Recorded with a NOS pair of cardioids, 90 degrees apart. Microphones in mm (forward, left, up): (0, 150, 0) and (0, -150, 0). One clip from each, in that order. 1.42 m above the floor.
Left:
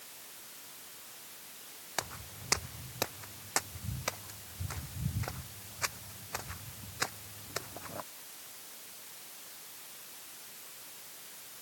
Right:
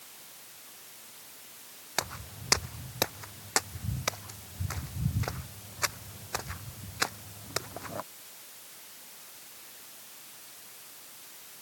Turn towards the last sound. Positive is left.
turn(degrees=-35)